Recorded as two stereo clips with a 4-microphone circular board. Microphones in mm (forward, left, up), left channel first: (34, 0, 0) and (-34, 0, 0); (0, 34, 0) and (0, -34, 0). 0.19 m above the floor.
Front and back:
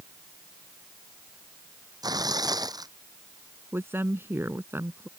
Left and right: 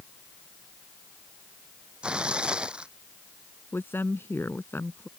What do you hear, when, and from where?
2.0 s tearing paper: 165° right
3.7 s a woman speaking: 135° left